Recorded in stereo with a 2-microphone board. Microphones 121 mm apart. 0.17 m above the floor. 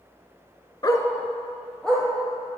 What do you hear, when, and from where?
0.8 s a dog barking: 35° left (ahead or behind), 0.6 m; by 2.1 s 5° left (ahead or behind), 2 m